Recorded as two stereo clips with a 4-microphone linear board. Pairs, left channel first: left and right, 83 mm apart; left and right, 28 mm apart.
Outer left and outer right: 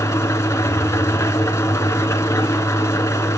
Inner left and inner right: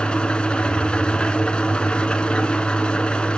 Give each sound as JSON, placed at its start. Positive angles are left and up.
{"t": 0.0, "sound": "an engine running", "side_deg": 35, "distance_m": 1.5}